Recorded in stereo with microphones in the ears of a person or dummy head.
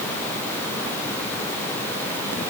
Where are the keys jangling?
I don't hear keys jangling.